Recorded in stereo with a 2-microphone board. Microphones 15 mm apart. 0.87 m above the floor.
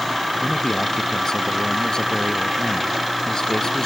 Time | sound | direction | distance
0.4 | a man speaking | 55° left (ahead or behind) | ?